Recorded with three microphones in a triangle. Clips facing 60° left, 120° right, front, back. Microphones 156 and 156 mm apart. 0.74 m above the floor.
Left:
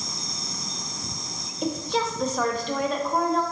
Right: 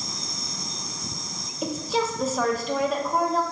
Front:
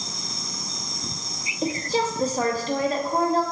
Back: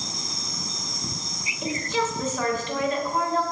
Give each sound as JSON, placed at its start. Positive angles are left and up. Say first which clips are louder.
{"t": 1.6, "sound": "a woman speaking", "louder": "even, front 2 dB", "azimuth_deg": -35, "distance_m": 0.6}